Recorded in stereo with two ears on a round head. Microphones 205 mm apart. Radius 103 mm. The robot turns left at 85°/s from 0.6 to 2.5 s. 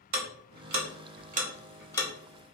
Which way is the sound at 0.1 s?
80° right.